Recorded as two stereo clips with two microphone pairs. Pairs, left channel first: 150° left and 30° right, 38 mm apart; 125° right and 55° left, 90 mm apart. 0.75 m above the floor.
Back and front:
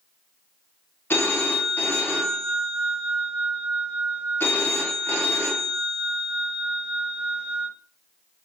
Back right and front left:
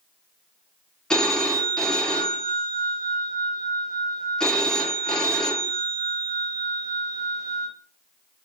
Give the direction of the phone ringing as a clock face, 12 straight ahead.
7 o'clock.